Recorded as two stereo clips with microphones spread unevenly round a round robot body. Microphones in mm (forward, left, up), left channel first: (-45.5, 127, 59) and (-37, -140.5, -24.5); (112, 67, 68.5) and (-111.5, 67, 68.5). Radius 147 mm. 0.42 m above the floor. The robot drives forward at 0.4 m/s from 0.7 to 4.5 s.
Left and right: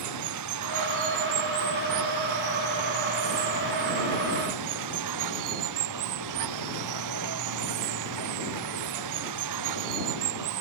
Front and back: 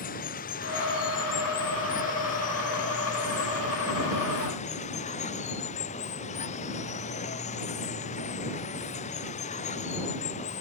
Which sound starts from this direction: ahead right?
Running water, at 0.0 s.